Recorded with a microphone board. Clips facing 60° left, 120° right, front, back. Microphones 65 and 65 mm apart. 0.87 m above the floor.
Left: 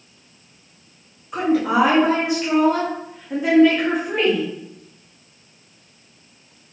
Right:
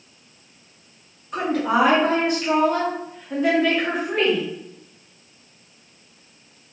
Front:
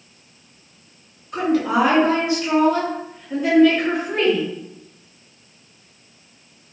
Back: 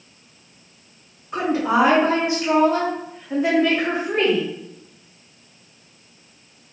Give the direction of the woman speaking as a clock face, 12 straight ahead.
7 o'clock.